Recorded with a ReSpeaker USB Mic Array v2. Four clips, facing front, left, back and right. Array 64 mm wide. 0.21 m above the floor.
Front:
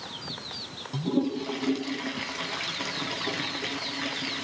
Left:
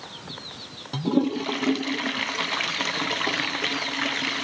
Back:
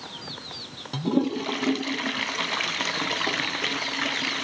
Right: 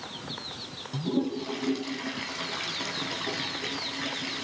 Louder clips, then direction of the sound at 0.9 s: Left 6 dB, back 3 dB; 130° left.